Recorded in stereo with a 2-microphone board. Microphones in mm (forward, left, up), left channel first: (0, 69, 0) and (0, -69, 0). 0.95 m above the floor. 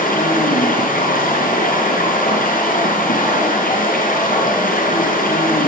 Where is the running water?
85° left, 6 m.